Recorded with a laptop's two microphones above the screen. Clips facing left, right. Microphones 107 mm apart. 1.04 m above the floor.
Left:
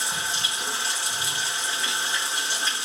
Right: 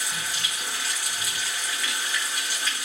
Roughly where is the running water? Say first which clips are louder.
Left 3 dB; left.